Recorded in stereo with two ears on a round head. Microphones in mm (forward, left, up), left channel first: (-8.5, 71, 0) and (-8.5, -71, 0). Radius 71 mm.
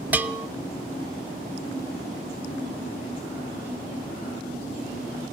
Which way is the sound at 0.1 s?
10° right (ahead or behind).